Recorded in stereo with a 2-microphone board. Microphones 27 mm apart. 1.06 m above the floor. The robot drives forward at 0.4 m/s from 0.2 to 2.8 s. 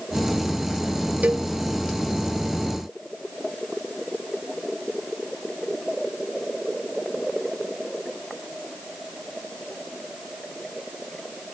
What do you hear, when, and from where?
1.2 s a cowbell: 65° right (ahead or behind)